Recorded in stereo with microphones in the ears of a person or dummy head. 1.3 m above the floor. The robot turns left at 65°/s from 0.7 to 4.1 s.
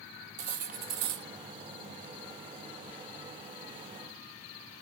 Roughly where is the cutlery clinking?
Ahead right.